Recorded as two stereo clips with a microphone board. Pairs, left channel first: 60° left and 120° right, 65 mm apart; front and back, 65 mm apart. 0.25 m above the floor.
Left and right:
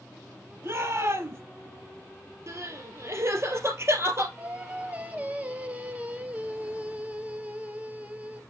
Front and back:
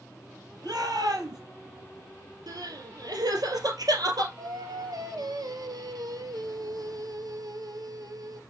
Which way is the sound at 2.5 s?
165° right.